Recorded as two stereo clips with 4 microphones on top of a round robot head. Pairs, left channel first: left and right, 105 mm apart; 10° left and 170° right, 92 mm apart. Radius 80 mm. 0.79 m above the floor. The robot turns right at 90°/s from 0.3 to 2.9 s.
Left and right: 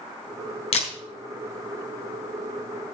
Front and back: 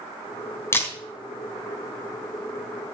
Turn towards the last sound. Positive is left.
turn(degrees=-95)